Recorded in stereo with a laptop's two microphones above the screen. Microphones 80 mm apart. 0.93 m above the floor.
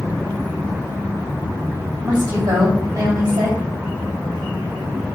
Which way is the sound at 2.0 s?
55° right (ahead or behind).